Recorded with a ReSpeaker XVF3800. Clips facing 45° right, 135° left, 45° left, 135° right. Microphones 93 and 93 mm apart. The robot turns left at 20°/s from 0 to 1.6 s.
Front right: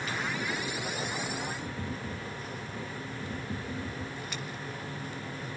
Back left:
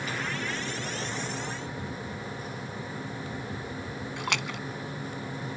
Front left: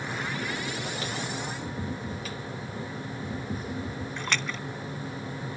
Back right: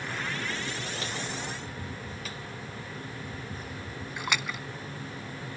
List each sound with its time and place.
1.6 s tapping: 30° left
4.2 s a splash: 145° left